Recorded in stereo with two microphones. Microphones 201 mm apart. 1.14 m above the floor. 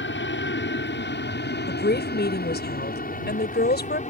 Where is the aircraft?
70° left (ahead or behind); by 4.1 s 35° left (ahead or behind).